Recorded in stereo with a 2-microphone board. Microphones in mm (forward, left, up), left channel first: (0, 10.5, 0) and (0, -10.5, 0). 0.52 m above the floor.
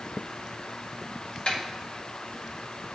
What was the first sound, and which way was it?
A snare drum, 60° left (ahead or behind).